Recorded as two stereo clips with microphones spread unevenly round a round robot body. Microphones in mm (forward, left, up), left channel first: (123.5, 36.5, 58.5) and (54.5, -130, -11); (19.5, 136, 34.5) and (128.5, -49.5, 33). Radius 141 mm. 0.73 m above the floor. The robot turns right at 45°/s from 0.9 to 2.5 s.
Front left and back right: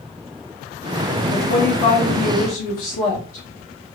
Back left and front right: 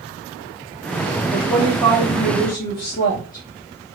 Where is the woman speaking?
20° left, 1.0 m; by 3.5 s 75° left, 1.0 m.